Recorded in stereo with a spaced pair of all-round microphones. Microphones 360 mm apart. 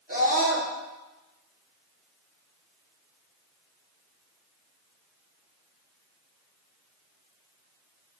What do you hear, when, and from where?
0.1 s a scream: 25° right (ahead or behind), 3.5 m